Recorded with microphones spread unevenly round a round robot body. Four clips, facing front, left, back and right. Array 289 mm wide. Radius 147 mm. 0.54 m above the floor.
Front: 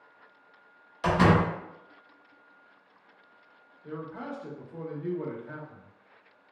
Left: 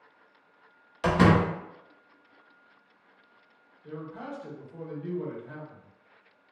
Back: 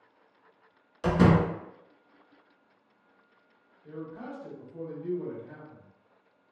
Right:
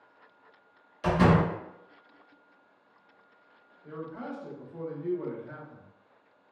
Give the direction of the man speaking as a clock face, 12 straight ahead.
12 o'clock.